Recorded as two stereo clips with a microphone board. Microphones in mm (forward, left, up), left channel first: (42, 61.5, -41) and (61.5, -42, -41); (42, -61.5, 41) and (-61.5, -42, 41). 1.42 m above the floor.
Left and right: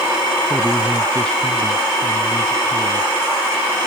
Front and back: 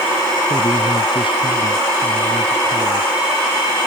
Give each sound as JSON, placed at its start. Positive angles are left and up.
{"t": 0.5, "sound": "a man speaking", "azimuth_deg": 20}